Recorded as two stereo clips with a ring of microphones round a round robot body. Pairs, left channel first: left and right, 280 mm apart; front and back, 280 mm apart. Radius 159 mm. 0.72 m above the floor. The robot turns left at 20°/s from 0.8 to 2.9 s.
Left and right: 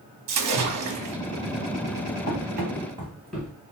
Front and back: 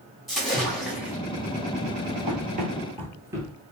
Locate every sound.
0.3 s a splash: 90° right, 0.9 m; by 1.2 s 95° right, 0.9 m
2.3 s running footsteps: 120° right, 0.9 m; by 3.5 s 115° left, 0.7 m